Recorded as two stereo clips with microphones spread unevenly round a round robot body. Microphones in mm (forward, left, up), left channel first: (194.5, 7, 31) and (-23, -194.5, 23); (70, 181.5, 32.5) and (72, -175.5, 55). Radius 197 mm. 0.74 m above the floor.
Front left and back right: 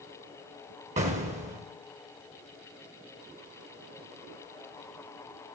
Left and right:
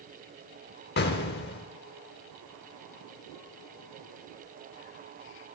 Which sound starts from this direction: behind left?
An explosion, at 1.0 s.